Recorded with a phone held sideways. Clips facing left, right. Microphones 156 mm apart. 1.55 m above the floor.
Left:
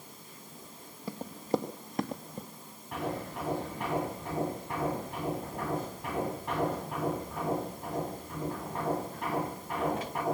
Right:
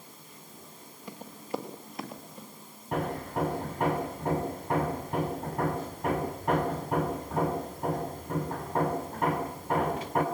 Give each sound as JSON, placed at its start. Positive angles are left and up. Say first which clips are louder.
{"t": 1.1, "sound": "running footsteps", "louder": "left 5 dB", "side_deg": 35, "distance_m": 2.0}
{"t": 2.9, "sound": "hammering", "louder": "right 4 dB", "side_deg": -45, "distance_m": 6.0}